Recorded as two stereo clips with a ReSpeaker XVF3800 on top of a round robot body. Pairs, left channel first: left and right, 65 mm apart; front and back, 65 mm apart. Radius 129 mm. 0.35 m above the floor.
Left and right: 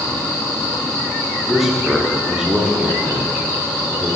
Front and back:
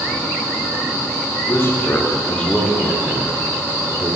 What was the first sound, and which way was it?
A man speaking, straight ahead.